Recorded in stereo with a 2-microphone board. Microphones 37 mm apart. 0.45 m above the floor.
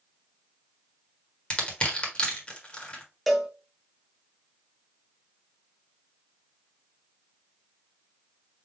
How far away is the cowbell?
About 0.7 m.